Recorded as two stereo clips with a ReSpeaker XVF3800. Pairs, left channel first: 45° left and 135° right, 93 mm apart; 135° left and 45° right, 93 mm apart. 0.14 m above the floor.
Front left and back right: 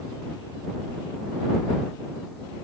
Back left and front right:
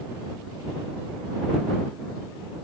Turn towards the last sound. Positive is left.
No sound to turn to.